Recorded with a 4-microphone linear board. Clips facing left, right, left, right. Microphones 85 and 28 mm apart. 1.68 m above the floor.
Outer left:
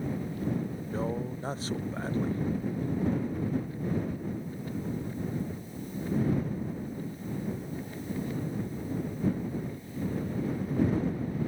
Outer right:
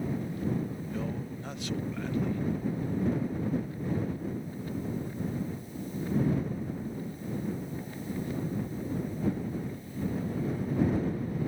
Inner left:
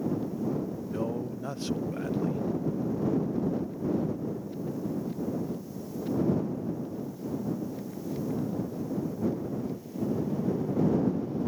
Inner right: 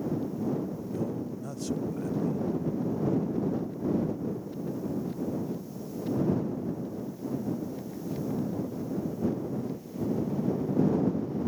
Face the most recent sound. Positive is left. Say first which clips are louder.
# outer left 3 dB, inner left 2 dB
turn(degrees=35)  # may be behind; listen again after turning